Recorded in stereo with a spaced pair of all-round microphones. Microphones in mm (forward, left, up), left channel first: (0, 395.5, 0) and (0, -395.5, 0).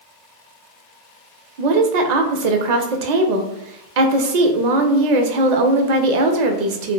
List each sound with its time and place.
1.6 s a woman speaking: 65° right (ahead or behind), 0.6 m